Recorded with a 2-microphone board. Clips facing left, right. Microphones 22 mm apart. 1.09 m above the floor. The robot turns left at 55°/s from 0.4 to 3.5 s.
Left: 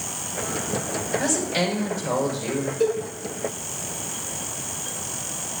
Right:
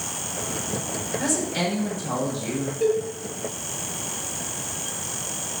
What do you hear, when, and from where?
1.2 s a woman speaking: 165° left, 5.5 m; by 2.7 s 85° left, 5.5 m
2.8 s a cowbell: 75° left (ahead or behind), 6.5 m; by 3.0 s 85° left, 6.5 m